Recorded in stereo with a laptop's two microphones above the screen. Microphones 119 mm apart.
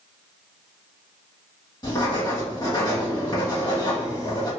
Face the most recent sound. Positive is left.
turn(degrees=35)  # may be behind; listen again after turning